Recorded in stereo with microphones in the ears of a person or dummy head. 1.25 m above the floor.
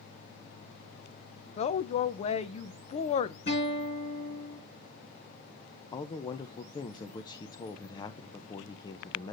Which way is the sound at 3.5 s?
35° left (ahead or behind).